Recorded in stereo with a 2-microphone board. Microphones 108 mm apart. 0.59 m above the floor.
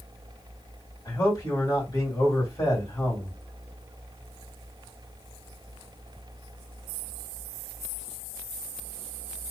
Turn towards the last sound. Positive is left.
turn(degrees=35)  # may be behind; listen again after turning